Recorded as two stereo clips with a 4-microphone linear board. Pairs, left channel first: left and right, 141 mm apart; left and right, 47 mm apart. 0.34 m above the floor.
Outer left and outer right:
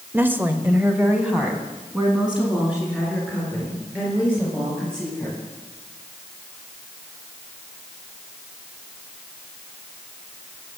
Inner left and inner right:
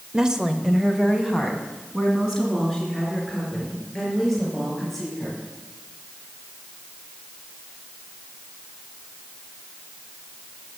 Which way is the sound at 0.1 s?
15° right (ahead or behind).